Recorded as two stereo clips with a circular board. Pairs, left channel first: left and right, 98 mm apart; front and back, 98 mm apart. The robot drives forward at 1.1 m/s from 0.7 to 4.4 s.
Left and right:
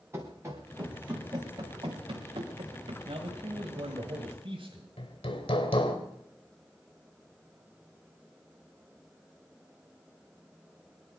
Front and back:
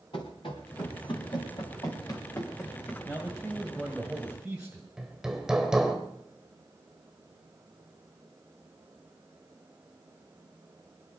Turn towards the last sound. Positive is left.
turn(degrees=95)